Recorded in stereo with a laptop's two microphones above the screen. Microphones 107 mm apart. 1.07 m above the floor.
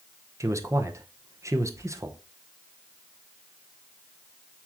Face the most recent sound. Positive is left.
turn(degrees=-30)  # may be behind; listen again after turning